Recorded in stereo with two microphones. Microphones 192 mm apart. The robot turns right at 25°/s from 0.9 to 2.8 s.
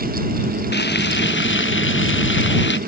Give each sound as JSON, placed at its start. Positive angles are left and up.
{"t": 0.7, "sound": "frying", "azimuth_deg": 65}